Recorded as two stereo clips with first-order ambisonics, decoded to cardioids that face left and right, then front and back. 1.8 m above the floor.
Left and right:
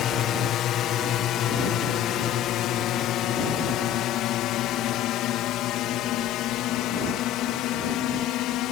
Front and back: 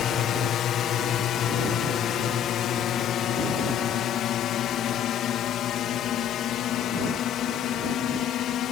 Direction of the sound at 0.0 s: 50° left.